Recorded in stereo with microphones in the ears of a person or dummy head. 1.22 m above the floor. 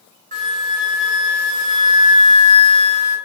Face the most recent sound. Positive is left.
turn(degrees=-40)  # may be behind; listen again after turning